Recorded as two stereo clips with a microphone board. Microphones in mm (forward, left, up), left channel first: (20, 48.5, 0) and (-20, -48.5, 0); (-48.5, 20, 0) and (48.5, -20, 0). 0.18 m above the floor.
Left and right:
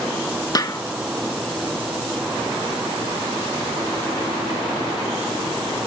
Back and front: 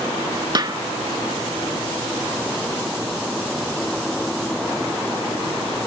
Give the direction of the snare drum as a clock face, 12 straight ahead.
11 o'clock.